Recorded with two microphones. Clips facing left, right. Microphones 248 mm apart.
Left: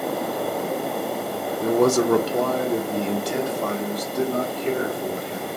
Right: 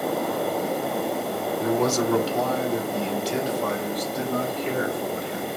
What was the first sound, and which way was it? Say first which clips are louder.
A man speaking: left 5 dB; 50° left (ahead or behind).